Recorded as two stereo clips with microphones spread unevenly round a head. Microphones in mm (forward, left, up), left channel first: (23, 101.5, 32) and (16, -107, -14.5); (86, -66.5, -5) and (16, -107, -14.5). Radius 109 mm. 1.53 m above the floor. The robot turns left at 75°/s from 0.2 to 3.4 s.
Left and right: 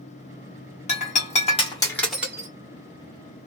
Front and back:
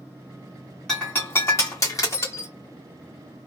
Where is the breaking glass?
105° left, 1.3 m; by 2.5 s 15° right, 1.3 m.